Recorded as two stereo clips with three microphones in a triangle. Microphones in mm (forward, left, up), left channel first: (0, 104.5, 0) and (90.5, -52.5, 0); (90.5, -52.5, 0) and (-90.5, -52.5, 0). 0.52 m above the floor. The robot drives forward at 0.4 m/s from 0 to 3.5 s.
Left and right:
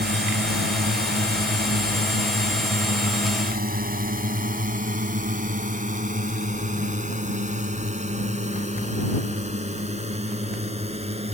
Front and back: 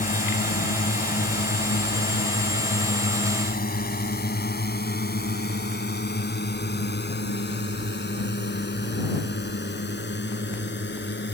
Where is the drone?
40° right; by 11.3 s 5° right.